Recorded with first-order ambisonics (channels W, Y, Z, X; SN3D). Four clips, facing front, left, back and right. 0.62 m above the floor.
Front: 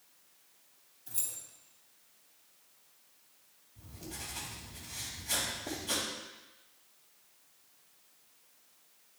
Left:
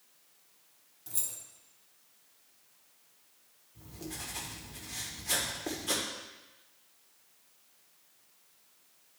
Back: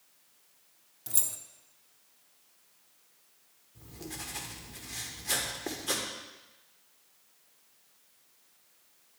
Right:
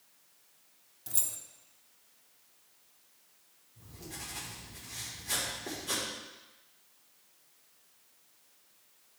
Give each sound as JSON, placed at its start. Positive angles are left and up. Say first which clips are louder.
{"t": 1.1, "sound": "keys jangling", "louder": "right 3 dB, back 7 dB", "azimuth_deg": -165, "distance_m": 0.6}
{"t": 3.8, "sound": "writing", "louder": "left 3 dB, back 3 dB", "azimuth_deg": 160, "distance_m": 1.3}